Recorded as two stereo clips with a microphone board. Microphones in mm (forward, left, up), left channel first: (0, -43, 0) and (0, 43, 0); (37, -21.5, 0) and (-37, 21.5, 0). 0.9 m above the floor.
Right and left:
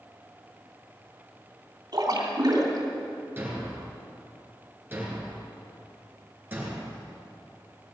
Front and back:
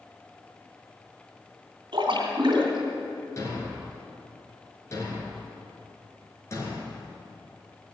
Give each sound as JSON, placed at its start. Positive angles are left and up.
{"t": 1.9, "sound": "a splash", "azimuth_deg": 125, "distance_m": 3.0}
{"t": 3.4, "sound": "a thud", "azimuth_deg": 25, "distance_m": 3.0}